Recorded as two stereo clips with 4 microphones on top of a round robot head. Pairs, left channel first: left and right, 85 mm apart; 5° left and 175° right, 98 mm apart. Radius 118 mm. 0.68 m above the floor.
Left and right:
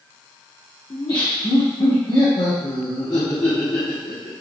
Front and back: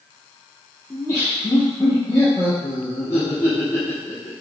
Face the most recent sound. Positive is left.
turn(degrees=65)